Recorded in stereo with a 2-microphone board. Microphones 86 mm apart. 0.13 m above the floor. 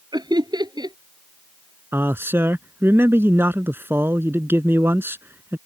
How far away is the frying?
No frying in this recording.